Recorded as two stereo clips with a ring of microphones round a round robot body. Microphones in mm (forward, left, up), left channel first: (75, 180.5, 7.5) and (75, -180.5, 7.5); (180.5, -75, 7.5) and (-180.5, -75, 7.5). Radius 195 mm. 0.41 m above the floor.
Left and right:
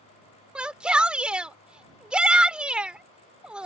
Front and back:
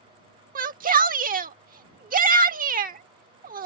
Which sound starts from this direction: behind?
A shout, at 0.6 s.